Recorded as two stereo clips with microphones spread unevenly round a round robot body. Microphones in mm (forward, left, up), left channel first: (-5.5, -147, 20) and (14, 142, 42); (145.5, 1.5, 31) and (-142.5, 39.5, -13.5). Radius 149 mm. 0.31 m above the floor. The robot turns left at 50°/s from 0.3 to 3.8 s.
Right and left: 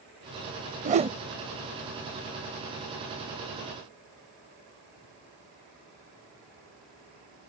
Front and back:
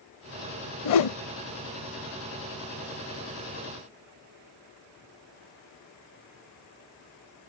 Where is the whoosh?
25° left; by 1.2 s 10° left.